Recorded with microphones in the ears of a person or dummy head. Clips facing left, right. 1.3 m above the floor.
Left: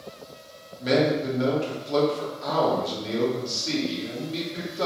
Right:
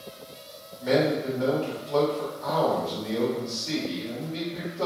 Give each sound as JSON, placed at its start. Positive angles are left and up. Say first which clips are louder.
{"t": 0.8, "sound": "a man speaking", "louder": "left 1 dB", "side_deg": 50, "distance_m": 1.9}